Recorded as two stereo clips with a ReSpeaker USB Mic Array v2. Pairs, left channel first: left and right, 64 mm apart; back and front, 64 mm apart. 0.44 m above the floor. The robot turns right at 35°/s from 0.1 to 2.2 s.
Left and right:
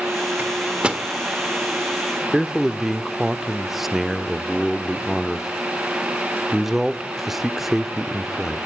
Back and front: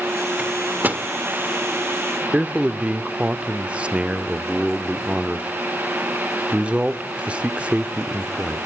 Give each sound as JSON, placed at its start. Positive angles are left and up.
{"t": 0.4, "sound": "a microwave", "azimuth_deg": -50, "distance_m": 1.1}
{"t": 2.3, "sound": "a man speaking", "azimuth_deg": -10, "distance_m": 0.8}